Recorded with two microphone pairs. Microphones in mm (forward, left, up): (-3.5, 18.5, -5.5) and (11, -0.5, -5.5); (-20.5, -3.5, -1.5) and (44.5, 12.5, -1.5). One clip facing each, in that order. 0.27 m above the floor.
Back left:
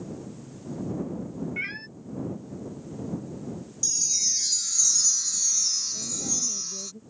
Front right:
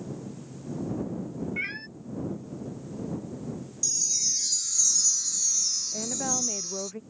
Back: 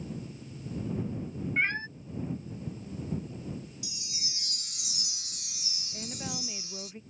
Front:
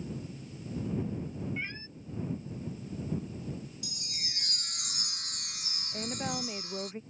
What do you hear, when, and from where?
1.6 s a cat meowing: 145° right
3.8 s a chime: 55° left
5.9 s a woman speaking: 50° right